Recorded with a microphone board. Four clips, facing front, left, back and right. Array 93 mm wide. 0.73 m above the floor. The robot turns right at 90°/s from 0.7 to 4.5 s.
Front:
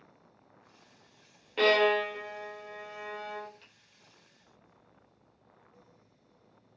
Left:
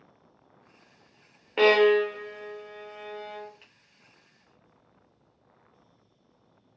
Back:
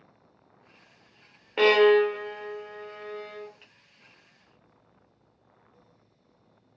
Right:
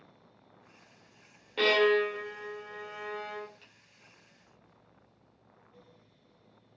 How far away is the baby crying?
I don't hear a baby crying.